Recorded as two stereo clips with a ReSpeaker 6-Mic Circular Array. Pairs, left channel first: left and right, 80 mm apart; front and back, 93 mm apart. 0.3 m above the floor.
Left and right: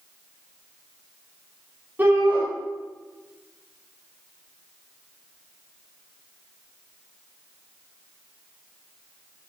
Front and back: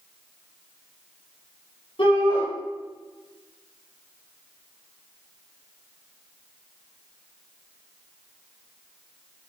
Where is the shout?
25° right, 8 m.